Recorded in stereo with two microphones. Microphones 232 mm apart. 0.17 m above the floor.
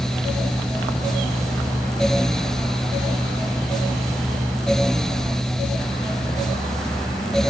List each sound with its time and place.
Only background noise.